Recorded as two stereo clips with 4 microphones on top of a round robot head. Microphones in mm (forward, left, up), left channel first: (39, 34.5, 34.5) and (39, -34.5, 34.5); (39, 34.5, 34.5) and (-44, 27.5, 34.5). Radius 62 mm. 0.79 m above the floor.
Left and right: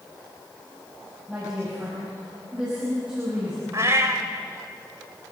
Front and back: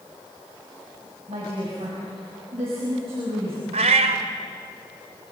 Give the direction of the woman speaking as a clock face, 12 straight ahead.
6 o'clock.